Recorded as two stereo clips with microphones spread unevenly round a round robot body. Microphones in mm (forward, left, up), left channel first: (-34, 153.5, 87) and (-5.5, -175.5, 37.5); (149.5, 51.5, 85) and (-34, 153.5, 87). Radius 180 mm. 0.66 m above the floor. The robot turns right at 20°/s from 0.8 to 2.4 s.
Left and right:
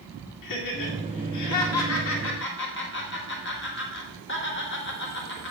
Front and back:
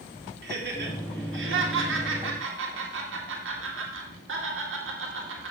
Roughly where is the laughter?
Behind left.